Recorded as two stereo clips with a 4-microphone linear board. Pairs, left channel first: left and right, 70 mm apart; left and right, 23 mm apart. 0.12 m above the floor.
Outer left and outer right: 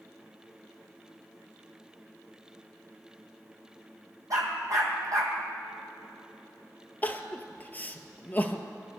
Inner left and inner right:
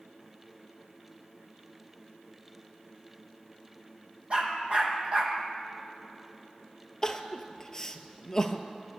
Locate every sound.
4.3 s a dog barking: 50° right (ahead or behind), 2.5 m
7.0 s crying: 25° left (ahead or behind), 0.8 m